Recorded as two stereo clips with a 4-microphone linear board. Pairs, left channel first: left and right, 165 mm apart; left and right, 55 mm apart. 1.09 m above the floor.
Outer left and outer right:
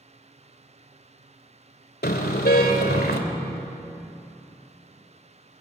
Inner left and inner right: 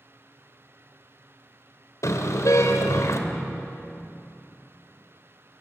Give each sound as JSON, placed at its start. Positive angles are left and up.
{"t": 2.0, "sound": "a car horn", "side_deg": 75, "distance_m": 2.5}